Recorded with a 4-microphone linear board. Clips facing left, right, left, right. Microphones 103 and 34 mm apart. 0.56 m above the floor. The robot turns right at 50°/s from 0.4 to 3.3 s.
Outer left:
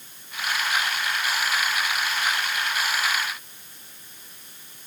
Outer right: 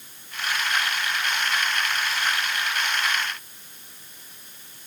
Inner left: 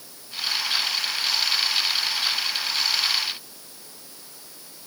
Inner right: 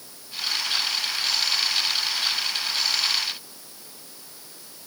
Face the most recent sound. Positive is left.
No sound to turn to.